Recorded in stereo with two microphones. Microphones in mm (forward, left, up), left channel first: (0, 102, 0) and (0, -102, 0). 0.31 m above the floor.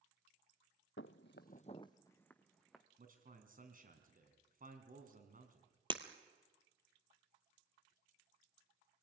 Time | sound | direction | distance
1.0 | footsteps | 70° left (ahead or behind) | 0.8 m
3.0 | a man speaking | 45° right (ahead or behind) | 3.5 m
5.9 | breaking glass | 25° right (ahead or behind) | 1.7 m